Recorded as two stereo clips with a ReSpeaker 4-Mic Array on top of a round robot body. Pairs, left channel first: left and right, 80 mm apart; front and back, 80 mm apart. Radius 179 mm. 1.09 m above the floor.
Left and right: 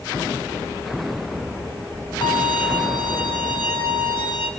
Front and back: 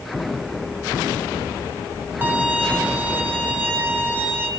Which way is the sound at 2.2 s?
115° left.